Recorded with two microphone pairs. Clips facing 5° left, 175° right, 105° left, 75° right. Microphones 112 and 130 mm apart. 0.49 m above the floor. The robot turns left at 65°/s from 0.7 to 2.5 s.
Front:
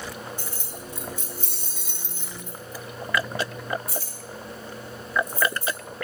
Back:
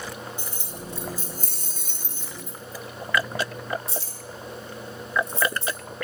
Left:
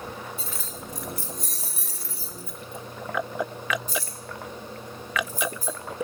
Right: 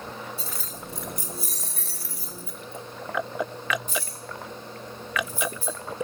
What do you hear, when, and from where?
0.4 s keys jangling: 110° right, 0.7 m; by 5.8 s 135° left, 0.7 m